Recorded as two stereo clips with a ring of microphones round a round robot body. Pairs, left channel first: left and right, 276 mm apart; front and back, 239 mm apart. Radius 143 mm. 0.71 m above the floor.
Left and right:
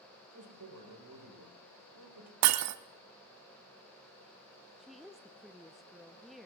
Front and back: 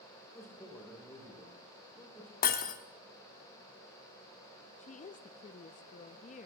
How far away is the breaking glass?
About 0.7 m.